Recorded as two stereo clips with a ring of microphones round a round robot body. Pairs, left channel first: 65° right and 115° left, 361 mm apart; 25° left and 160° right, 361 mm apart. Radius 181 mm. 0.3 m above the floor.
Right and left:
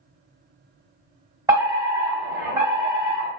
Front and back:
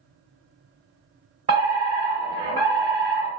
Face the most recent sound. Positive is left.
turn(degrees=170)